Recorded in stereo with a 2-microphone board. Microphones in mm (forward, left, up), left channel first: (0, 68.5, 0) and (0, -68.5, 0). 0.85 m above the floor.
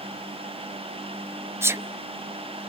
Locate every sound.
1.6 s a sneeze: 20° right (ahead or behind), 0.7 m